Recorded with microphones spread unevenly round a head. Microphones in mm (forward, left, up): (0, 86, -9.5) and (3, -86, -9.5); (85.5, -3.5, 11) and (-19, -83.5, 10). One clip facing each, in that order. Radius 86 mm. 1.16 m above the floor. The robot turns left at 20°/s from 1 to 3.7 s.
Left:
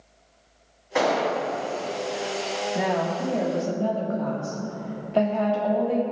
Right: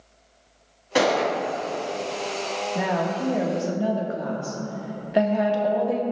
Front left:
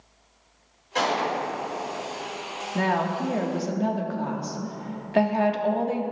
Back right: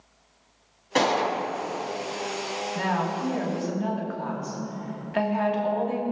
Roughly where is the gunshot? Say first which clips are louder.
Right 2 dB, back right 2 dB; behind right.